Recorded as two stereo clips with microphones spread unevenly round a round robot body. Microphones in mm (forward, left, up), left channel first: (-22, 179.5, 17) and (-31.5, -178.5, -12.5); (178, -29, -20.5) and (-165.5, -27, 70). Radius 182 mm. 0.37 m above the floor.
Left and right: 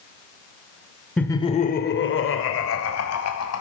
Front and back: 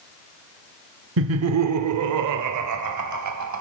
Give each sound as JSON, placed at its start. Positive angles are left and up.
{"t": 1.2, "sound": "laughter", "azimuth_deg": -175, "distance_m": 1.0}